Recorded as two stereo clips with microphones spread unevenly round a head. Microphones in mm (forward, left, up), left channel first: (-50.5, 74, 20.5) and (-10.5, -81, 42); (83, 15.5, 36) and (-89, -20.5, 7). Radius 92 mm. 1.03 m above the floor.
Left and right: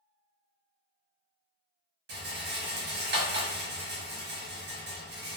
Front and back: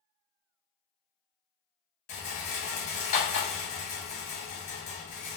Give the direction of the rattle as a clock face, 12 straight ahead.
1 o'clock.